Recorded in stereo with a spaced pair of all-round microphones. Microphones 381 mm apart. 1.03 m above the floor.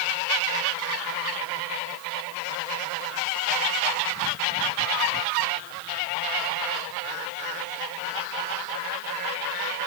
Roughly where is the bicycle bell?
No bicycle bell in this recording.